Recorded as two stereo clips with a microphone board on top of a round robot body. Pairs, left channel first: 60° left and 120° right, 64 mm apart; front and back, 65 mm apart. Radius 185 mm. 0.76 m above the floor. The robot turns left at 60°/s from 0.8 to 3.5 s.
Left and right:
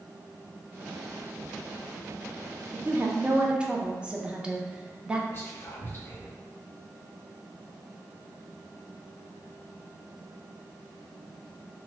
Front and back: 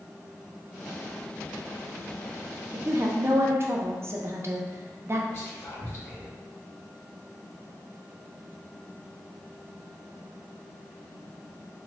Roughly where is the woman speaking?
Behind right.